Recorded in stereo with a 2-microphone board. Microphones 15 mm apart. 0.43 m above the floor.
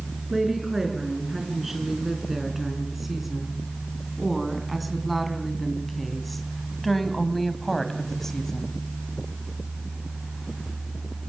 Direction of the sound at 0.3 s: 20° right (ahead or behind).